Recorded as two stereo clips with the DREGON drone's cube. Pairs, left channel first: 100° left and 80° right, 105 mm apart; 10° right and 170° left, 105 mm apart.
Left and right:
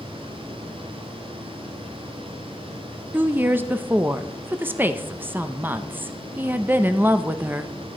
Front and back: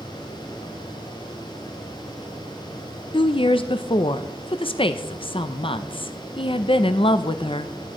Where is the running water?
65° right, 7 m.